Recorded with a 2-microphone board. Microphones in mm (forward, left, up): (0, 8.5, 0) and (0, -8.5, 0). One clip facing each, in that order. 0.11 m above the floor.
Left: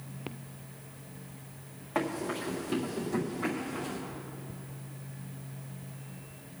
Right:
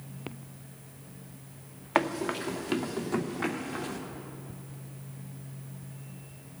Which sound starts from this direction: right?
Running footsteps, at 1.9 s.